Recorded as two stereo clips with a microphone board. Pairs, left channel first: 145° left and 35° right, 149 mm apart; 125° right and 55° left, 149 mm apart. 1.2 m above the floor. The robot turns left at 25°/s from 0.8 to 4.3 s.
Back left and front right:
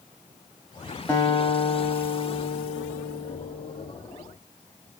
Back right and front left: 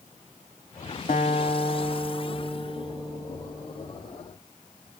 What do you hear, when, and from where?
1.1 s a guitar: 140° right, 1.3 m; by 3.9 s 150° left, 1.3 m